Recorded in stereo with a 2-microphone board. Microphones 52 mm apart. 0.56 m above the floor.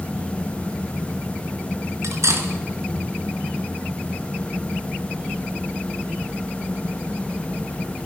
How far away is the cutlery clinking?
About 4 m.